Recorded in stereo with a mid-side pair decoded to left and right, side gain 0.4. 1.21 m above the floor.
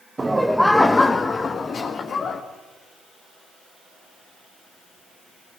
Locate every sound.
0.2 s laughter: 25° right, 0.9 m; by 2.4 s 60° left, 2 m